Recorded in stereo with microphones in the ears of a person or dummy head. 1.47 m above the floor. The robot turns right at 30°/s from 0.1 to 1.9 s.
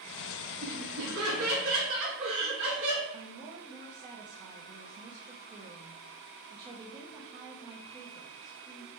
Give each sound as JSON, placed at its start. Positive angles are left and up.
{"t": 0.6, "sound": "laughter", "azimuth_deg": -110, "distance_m": 2.5}
{"t": 3.1, "sound": "a woman speaking", "side_deg": -25, "distance_m": 0.7}